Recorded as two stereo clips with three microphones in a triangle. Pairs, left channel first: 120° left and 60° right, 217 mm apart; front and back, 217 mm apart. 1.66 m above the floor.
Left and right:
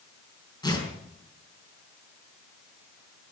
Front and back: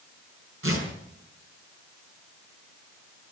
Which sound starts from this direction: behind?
Tearing paper, at 0.6 s.